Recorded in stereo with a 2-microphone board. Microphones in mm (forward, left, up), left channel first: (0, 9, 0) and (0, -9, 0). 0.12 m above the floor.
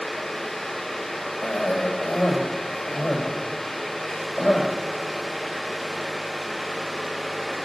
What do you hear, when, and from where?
1.4 s a cough: 75° left (ahead or behind), 5 m